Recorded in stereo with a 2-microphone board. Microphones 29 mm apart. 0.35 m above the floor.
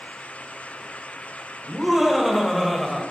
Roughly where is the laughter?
Centre.